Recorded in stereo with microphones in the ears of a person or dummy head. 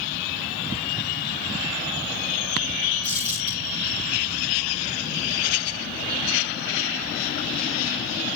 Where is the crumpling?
30° left (ahead or behind), 4.5 m.